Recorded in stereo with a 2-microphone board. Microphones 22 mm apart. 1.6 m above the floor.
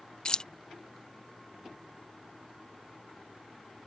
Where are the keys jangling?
35° left (ahead or behind).